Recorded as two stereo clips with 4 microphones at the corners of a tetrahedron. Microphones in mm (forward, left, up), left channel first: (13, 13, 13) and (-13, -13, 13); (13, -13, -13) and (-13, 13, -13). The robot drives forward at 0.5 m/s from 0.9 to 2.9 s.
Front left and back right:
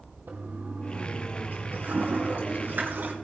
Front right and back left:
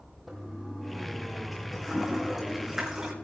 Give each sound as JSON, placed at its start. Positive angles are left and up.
{"t": 0.3, "sound": "a toilet flushing", "azimuth_deg": -130, "distance_m": 2.5}